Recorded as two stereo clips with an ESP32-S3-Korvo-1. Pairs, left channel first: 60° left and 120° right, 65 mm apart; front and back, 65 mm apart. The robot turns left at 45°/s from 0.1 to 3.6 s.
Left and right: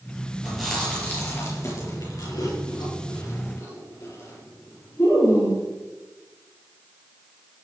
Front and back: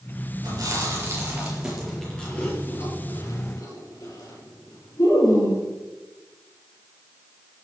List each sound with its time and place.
0.4 s chewing: 155° left, 6 m; by 5.6 s 15° left, 6 m